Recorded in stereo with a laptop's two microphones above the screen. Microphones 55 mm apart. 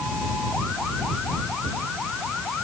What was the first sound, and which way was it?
Only background noise.